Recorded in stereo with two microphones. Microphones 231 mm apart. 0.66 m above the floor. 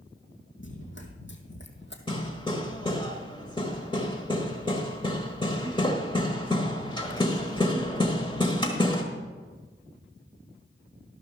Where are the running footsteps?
55° left (ahead or behind), 2 m.